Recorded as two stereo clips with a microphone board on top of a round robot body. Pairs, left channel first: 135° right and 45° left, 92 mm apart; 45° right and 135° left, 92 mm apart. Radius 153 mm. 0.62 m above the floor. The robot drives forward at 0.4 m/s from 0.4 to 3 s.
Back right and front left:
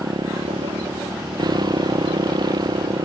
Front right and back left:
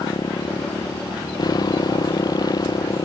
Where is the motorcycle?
Straight ahead.